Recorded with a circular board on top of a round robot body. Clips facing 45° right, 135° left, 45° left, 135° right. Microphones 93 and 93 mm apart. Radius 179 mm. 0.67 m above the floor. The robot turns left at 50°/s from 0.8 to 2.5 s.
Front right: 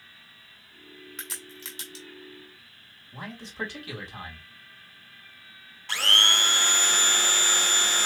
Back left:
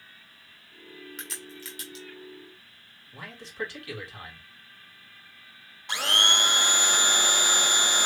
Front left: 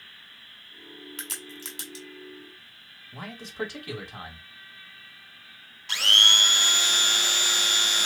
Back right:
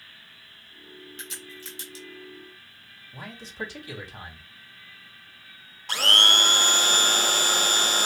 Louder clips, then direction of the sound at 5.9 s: Even, back right 3 dB; 160° right.